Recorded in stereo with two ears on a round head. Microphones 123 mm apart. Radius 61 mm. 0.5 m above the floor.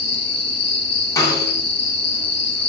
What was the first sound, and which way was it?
An insect, 40° left (ahead or behind).